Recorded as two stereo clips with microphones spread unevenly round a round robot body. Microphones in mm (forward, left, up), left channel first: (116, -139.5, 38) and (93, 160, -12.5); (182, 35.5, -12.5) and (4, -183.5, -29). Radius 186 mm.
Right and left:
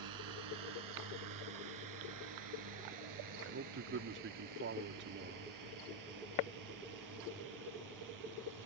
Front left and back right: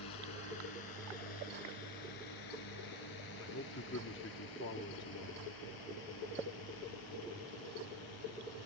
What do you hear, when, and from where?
0.0 s a drone: 90° left; by 8.7 s 75° left
3.4 s a man speaking: 95° left